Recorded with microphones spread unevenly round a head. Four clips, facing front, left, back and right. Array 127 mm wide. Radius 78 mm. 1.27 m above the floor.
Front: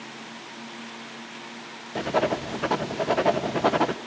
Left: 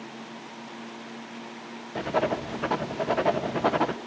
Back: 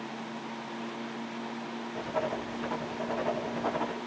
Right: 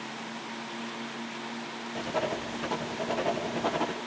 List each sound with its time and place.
1.9 s writing: 15° left, 1.2 m